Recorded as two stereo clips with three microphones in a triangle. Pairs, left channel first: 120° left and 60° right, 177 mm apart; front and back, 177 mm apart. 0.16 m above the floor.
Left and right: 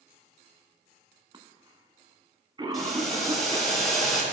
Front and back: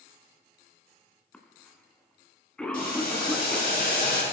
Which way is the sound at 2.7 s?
30° left.